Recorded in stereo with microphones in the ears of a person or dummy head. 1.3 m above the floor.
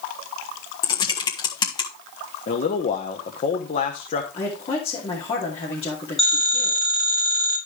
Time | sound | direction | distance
0.8 | typing on a keyboard | 30° left (ahead or behind) | 1.4 m
2.5 | a man speaking | 45° left (ahead or behind) | 1.0 m
4.3 | a woman speaking | 40° left (ahead or behind) | 2.5 m
6.2 | a phone ringing | 10° left (ahead or behind) | 3 m